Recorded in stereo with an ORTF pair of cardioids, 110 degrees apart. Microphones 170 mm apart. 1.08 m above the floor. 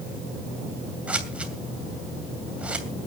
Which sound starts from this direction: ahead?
Scissors, at 1.1 s.